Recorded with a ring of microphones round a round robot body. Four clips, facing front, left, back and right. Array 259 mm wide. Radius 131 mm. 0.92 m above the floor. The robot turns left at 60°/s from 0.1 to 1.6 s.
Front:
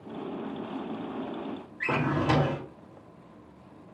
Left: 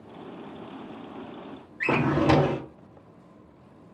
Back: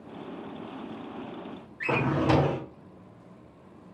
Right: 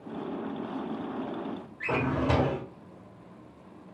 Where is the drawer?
90° left, 0.7 m.